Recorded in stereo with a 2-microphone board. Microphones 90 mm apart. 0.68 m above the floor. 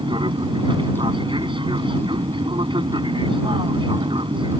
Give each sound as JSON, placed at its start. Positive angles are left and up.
{"t": 0.0, "sound": "an aircraft", "side_deg": -65}